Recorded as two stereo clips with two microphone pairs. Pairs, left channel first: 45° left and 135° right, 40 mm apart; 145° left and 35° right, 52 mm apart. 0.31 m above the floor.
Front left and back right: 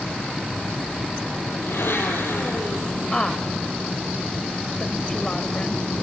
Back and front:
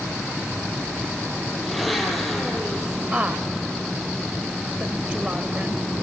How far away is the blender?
About 5.5 m.